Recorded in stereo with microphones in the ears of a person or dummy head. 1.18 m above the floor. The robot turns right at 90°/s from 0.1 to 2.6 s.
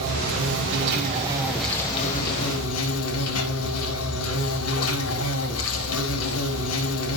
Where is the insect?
135° right, 4 m; by 7.2 s 90° left, 4 m.